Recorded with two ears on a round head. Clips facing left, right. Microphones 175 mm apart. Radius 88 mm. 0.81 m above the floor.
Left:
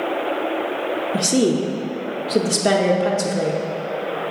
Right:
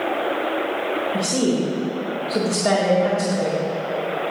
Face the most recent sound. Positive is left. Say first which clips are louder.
# left 4 dB
turn(degrees=30)  # may be behind; listen again after turning